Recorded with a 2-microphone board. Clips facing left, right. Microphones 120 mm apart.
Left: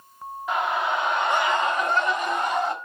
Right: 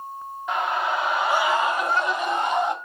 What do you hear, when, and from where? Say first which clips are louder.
0.5 s a scream: even; centre (ahead or behind), 1.1 m; by 2.7 s 10° right (ahead or behind), 1.2 m